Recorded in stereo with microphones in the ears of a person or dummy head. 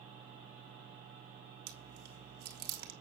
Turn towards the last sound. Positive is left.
turn(degrees=-50)  # may be behind; listen again after turning